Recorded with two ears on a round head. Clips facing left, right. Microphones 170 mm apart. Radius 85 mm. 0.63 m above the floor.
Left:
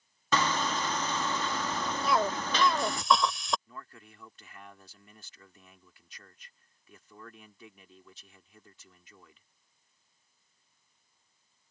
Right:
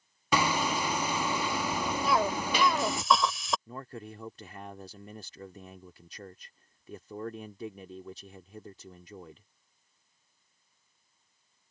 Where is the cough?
Centre (ahead or behind).